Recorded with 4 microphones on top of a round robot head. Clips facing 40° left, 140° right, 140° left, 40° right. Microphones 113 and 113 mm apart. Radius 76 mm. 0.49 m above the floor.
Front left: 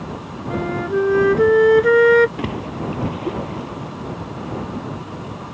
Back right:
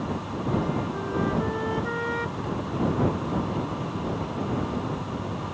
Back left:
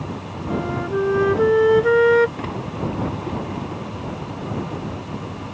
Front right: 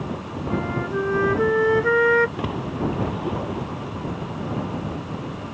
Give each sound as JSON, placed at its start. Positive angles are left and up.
{"t": 0.5, "sound": "a flute", "azimuth_deg": 70}
{"t": 2.4, "sound": "a splash", "azimuth_deg": 40}